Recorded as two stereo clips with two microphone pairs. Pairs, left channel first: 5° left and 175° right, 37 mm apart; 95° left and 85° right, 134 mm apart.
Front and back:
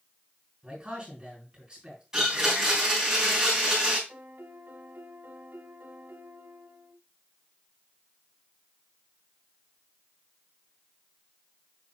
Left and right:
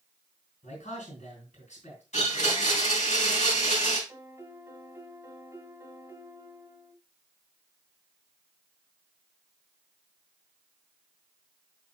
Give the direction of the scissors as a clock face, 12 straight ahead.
No scissors in this recording.